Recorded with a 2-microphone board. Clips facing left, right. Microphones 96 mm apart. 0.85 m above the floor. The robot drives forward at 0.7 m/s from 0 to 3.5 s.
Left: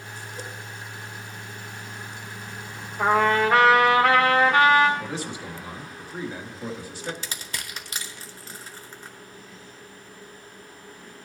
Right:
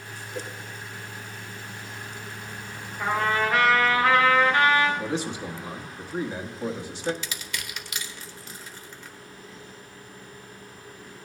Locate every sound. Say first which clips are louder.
0.3 s a whoosh: right 4 dB; 75° right (ahead or behind), 5 m
3.0 s a trumpet: left 5 dB; 65° left (ahead or behind), 1.5 m; by 4.9 s 80° left, 1.4 m
5.0 s a man speaking: right 3 dB; 20° right (ahead or behind), 1.3 m
7.2 s crushing: even; 35° left (ahead or behind), 1.0 m